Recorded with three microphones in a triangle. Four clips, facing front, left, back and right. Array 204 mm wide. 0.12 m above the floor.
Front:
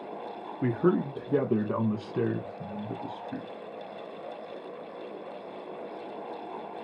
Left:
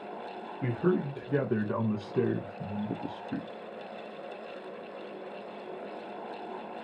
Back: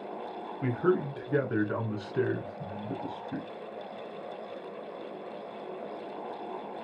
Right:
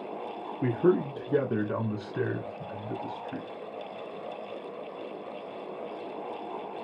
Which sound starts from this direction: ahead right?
A man speaking, at 0.6 s.